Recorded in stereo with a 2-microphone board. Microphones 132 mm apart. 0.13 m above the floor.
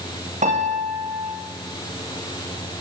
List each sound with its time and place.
0.4 s a piano: 70° right (ahead or behind), 5 m